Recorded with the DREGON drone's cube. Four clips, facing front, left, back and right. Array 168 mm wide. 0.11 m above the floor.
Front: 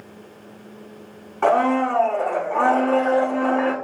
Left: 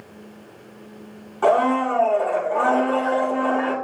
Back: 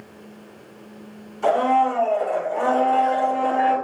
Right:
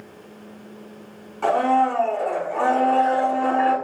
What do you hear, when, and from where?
1.4 s a blender: 25° left, 9 m